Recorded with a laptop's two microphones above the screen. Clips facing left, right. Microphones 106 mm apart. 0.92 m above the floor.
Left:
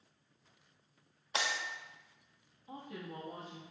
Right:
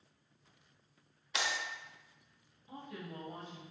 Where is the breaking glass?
35° left (ahead or behind), 0.8 m.